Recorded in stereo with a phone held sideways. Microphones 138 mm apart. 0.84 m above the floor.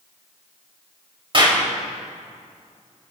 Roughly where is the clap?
Right.